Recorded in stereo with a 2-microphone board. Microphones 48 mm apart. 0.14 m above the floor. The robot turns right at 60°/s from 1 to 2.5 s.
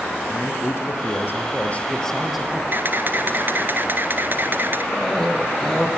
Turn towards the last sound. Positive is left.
turn(degrees=10)  # may be behind; listen again after turning